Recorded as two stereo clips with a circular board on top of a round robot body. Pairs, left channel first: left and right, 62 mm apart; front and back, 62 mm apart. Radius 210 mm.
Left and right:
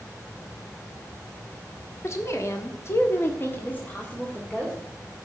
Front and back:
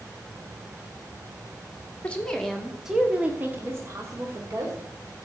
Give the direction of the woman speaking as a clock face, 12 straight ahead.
10 o'clock.